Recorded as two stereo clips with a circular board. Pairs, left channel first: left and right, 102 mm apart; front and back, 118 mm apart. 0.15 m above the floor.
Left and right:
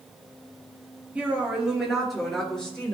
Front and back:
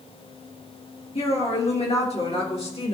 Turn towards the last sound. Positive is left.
turn(degrees=15)